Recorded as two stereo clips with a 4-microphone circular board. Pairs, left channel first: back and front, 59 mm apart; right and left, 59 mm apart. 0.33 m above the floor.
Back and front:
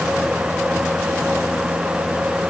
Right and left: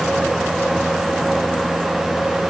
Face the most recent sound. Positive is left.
No sound to turn to.